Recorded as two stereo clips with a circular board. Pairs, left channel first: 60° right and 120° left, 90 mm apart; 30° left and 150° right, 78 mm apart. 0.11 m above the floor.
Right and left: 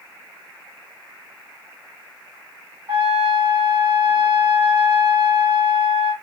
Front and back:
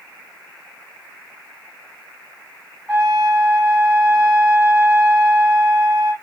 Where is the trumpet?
110° left, 2.5 m.